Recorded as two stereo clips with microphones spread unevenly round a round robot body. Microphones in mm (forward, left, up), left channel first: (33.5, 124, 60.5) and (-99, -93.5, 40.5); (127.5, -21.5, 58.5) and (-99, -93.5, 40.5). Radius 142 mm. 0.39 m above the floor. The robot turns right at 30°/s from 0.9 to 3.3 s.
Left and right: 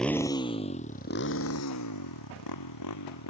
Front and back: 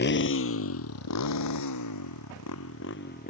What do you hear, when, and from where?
0.0 s a motorcycle: 30° right; by 3.3 s 80° left